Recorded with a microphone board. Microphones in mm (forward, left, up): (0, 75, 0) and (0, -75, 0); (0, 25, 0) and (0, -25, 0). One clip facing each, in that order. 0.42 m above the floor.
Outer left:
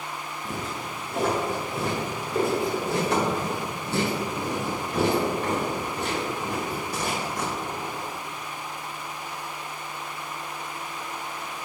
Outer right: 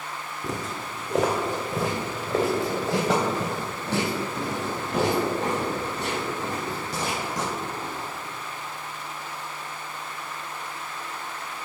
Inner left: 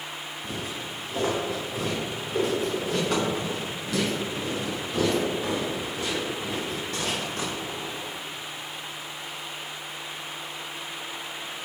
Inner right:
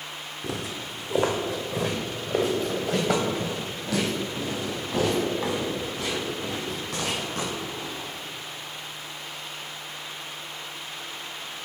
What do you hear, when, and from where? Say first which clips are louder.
0.4 s footsteps: outer right 2 dB, inner right 2 dB; 70° right (ahead or behind), 1.6 m